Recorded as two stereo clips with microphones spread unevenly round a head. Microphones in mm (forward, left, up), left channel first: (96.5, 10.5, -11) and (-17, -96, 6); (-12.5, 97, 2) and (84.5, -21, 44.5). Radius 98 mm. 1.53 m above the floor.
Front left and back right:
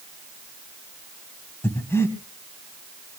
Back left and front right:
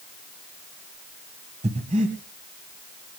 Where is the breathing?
35° right, 2.5 m.